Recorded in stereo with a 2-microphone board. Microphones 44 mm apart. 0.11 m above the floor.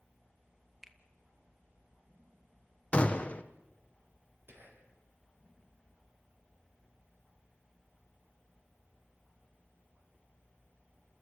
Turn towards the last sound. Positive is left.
turn(degrees=-60)  # may be behind; listen again after turning